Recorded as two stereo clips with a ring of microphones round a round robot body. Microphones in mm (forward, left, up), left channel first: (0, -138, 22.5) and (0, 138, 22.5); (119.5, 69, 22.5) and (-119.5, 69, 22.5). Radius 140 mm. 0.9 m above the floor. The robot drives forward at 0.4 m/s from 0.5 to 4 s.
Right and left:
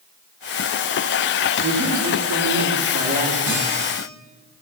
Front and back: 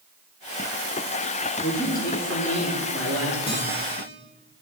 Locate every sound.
1.6 s a man speaking: 50° left, 3 m; by 3.4 s 65° left, 2.5 m
3.5 s a guitar: 70° left, 5.5 m